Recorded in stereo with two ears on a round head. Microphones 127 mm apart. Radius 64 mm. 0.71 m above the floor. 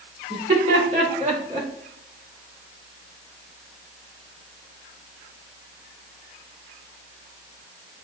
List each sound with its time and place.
0.3 s laughter: 50° right (ahead or behind), 2.5 m; by 1.7 s 30° right (ahead or behind), 1.5 m